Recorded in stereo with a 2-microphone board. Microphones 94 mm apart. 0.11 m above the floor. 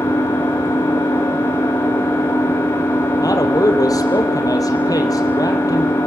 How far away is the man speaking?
About 3 m.